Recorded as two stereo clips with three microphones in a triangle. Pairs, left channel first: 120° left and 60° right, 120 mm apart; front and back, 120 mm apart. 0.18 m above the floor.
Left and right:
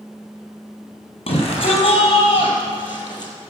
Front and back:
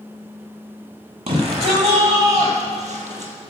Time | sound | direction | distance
1.3 | a shout | 155° left | 4 m